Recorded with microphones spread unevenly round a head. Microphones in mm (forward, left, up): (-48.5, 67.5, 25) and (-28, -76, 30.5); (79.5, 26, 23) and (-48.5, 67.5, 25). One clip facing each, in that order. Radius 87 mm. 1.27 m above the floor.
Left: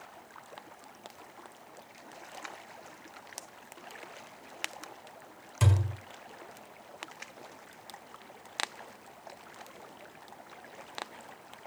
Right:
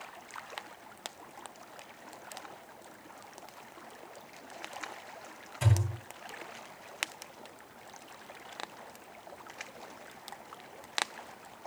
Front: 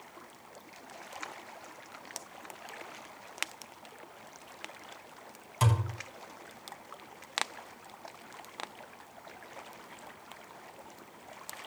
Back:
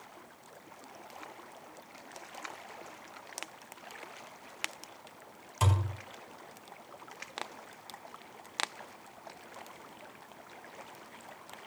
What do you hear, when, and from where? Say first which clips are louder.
5.6 s a thud: left 1 dB, front 2 dB; 75° left, 4 m